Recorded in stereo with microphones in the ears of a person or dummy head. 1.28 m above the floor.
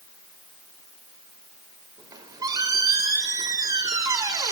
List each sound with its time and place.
2.0 s a squeak: 25° right (ahead or behind), 1.8 m